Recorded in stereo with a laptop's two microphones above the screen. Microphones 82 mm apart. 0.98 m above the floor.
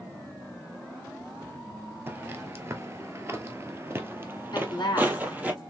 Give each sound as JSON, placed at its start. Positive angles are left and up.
{"t": 2.1, "sound": "footsteps", "side_deg": -30, "distance_m": 1.2}
{"t": 4.5, "sound": "a woman speaking", "side_deg": 60, "distance_m": 1.5}